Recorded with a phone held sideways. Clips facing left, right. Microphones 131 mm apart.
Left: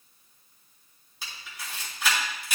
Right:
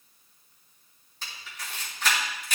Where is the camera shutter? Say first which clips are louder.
Even; 10° left (ahead or behind), 3.5 m.